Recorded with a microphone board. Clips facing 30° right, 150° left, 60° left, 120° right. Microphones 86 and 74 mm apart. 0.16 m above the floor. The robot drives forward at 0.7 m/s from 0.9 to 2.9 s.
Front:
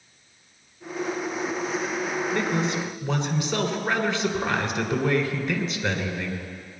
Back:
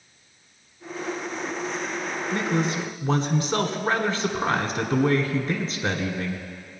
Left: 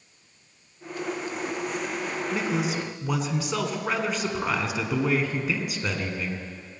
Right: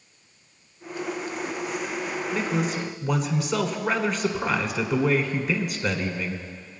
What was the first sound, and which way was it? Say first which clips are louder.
A man speaking: back 3 dB, right 1 dB; 130° left.